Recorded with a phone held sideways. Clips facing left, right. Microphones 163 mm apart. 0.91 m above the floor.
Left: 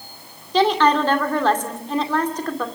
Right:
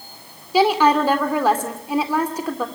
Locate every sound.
0.5 s a woman speaking: 10° right (ahead or behind), 2.5 m